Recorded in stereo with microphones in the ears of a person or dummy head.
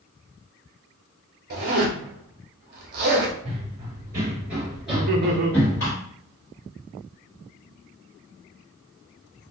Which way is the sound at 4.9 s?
50° right (ahead or behind).